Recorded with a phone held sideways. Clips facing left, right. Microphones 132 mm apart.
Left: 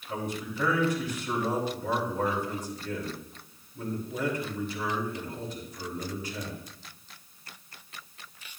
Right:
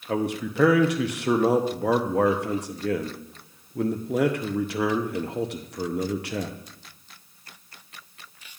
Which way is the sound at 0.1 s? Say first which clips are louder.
Right 8 dB; 70° right (ahead or behind).